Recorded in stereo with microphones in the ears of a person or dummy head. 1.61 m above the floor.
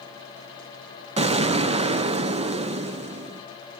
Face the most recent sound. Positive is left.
turn(degrees=-30)  # may be behind; listen again after turning